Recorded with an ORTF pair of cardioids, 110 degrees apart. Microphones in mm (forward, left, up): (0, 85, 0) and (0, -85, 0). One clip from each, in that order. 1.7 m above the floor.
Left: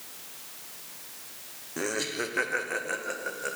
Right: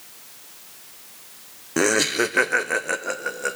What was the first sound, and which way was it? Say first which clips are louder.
Laughter: right 11 dB; 65° right.